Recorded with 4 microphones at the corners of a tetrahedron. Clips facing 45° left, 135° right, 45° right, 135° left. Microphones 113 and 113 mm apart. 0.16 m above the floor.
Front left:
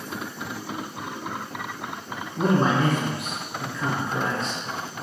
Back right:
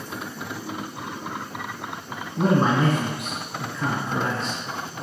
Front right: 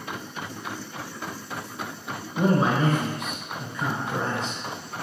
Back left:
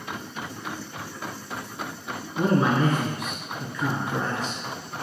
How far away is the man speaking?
About 1.2 m.